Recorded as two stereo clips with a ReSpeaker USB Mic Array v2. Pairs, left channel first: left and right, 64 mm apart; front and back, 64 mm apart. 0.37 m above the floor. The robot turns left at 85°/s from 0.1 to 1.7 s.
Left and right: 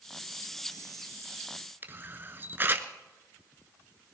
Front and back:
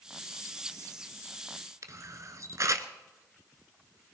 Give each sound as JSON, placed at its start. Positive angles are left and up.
{"t": 1.8, "sound": "a camera shutter", "azimuth_deg": -145, "distance_m": 0.9}